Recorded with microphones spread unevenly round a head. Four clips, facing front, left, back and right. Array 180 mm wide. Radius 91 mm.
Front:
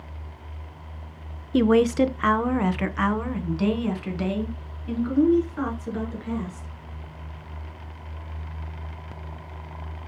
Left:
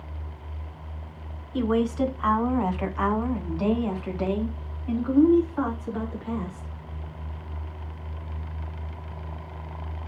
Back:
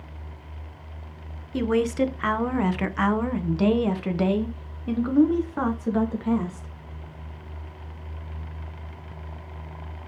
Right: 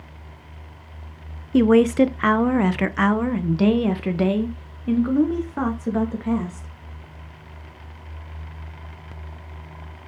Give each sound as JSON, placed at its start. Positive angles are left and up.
{"t": 1.5, "sound": "a woman speaking", "azimuth_deg": -60, "distance_m": 1.0}